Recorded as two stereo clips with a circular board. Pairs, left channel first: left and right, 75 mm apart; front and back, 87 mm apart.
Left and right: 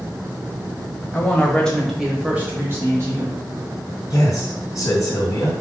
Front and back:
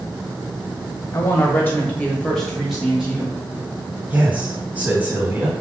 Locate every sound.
1.1 s a woman speaking: 40° left, 1.1 m; by 3.4 s 110° right, 1.3 m
4.1 s a man speaking: 115° left, 1.6 m